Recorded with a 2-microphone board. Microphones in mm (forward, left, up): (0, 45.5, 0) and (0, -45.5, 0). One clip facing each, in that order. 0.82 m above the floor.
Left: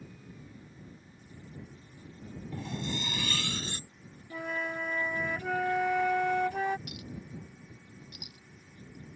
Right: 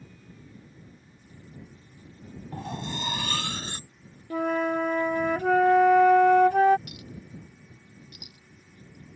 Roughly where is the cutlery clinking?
Right.